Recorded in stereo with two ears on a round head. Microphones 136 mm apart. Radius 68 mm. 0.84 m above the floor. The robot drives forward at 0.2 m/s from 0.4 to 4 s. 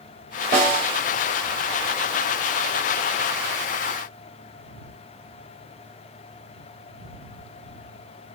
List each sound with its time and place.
0.5 s a snare drum: 60° right (ahead or behind), 2.5 m